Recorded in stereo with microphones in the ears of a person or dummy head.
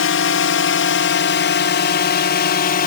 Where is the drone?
55° left (ahead or behind); by 2.9 s 35° left (ahead or behind).